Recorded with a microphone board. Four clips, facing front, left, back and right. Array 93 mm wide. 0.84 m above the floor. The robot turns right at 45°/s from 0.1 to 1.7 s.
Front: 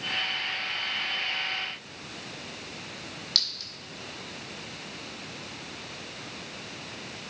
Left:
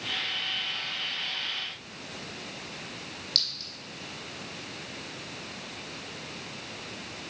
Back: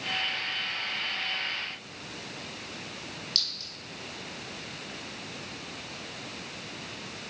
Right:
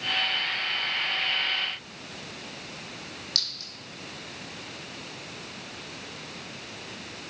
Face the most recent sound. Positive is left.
turn(degrees=-10)